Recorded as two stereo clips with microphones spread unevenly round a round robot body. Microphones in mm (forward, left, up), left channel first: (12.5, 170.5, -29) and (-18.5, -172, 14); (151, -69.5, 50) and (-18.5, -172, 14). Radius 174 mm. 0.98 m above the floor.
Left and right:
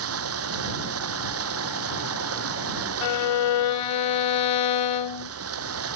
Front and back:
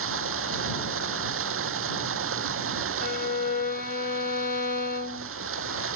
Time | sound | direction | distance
0.0 | running water | 145° right | ?
3.0 | a violin | 95° left | ?